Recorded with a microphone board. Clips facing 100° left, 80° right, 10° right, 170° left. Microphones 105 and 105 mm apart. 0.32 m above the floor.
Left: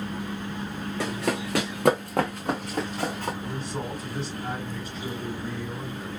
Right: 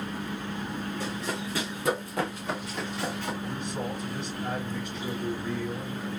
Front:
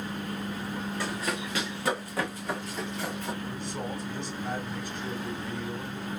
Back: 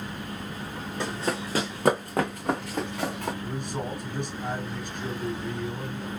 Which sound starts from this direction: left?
Running footsteps, at 1.0 s.